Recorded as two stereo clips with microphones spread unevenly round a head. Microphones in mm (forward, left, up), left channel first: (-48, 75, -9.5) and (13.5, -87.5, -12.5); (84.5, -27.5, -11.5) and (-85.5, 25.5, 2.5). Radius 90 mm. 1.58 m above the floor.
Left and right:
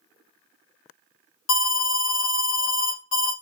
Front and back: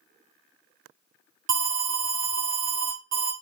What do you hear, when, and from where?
1.5 s an alarm: 115° left, 1.0 m